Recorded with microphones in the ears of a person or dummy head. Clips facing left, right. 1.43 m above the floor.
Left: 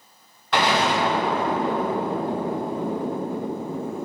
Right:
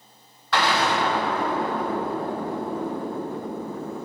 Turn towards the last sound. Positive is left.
turn(degrees=15)  # may be behind; listen again after turning